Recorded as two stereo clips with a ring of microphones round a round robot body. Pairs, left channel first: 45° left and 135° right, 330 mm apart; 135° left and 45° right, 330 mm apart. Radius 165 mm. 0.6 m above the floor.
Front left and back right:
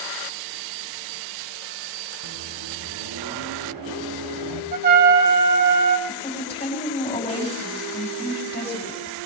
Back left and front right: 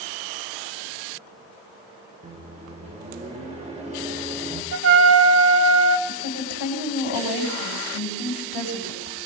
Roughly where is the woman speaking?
Behind left.